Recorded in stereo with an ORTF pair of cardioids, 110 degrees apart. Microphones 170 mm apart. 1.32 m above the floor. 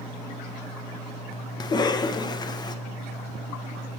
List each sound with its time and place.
1.6 s a cough: 25° left, 0.6 m